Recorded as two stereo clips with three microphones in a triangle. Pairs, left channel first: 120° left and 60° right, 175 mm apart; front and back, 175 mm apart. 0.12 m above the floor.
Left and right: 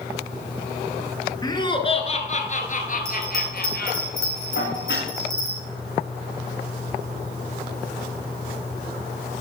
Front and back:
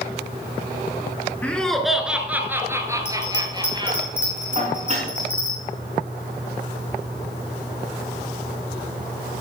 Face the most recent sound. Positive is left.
turn(degrees=125)